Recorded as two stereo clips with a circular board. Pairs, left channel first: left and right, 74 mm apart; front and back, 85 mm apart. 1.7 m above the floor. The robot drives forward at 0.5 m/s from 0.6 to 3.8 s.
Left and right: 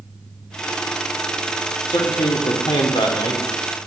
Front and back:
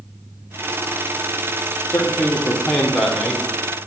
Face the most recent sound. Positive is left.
turn(degrees=105)